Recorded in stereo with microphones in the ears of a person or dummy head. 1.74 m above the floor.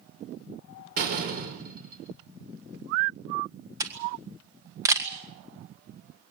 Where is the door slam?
50° right (ahead or behind), 5 m.